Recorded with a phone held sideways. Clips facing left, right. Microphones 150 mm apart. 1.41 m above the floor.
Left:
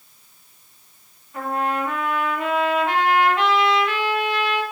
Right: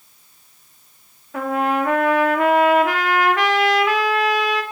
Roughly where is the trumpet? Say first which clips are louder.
Right 4 dB; right.